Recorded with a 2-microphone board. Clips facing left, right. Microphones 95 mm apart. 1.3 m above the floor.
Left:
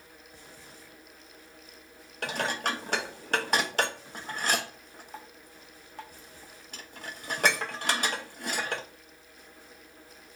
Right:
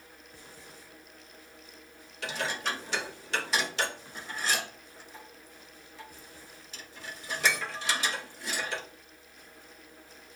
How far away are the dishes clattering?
About 0.9 m.